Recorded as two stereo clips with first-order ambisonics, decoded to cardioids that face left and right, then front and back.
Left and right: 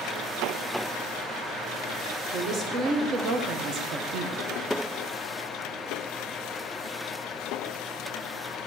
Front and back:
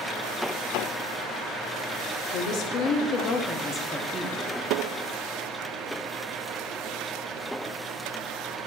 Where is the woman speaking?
25° right, 1.1 m; by 4.4 s 115° right, 0.6 m.